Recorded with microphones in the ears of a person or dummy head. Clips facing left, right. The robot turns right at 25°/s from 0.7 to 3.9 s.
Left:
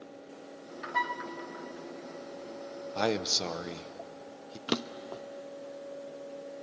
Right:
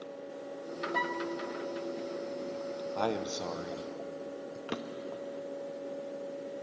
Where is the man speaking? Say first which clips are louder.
Left 3 dB; 20° left (ahead or behind), 0.8 m; by 4.6 s 40° left (ahead or behind), 0.8 m.